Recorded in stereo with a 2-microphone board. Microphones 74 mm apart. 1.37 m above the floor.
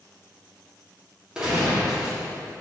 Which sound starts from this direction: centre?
A gunshot, at 1.4 s.